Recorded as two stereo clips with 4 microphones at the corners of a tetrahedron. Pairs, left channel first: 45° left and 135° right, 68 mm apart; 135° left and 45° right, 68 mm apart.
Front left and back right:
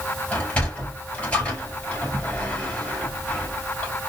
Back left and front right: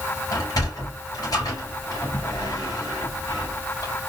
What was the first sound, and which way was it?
A sliding door, 115° left.